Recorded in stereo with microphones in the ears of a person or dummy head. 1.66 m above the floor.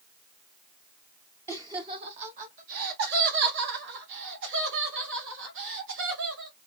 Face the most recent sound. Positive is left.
turn(degrees=-75)  # may be behind; listen again after turning